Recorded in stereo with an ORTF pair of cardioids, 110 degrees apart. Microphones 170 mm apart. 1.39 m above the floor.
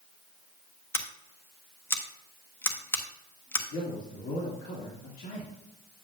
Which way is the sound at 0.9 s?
15° left.